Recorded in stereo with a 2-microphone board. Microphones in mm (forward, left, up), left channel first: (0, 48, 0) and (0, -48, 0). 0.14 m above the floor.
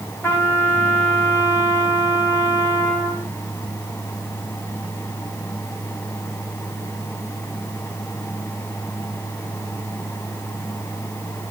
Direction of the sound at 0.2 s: 25° left (ahead or behind).